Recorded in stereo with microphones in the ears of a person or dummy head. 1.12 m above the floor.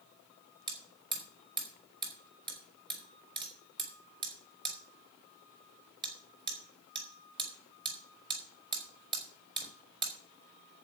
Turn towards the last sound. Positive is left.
turn(degrees=-25)  # may be behind; listen again after turning